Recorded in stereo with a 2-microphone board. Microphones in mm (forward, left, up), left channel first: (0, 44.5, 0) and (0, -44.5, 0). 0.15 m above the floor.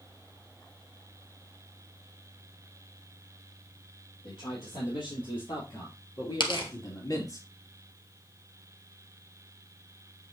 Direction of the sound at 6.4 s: 65° left (ahead or behind).